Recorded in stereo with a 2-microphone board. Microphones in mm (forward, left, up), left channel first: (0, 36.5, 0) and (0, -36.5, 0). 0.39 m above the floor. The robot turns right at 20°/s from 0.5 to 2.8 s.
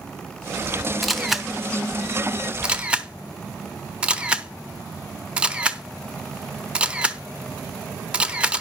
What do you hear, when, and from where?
1.0 s a camera shutter: centre (ahead or behind), 0.8 m; by 8.6 s 15° right (ahead or behind), 0.8 m